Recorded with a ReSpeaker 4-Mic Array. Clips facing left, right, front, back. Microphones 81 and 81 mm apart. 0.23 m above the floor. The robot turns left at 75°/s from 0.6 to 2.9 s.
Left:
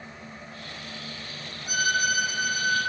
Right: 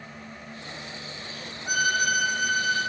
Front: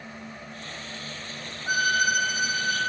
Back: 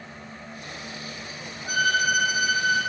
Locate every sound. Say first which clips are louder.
1.7 s a violin: right 1 dB, back 1 dB; 60° right, 1.2 m; by 2.8 s 145° right, 1.2 m